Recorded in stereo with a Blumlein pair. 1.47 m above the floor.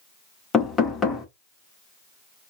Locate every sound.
0.5 s knocking: 15° left, 1.1 m